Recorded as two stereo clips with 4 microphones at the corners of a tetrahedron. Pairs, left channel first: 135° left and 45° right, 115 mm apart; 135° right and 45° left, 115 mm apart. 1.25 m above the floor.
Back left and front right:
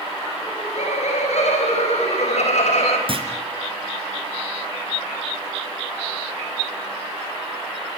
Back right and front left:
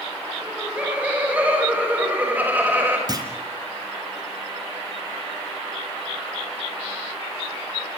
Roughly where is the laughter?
Behind left.